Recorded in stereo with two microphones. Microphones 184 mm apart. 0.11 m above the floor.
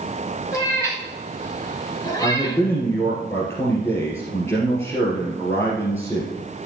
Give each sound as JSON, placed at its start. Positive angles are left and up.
{"t": 0.5, "sound": "a cat meowing", "side_deg": 15, "distance_m": 4.0}
{"t": 2.2, "sound": "a man speaking", "side_deg": 15, "distance_m": 2.0}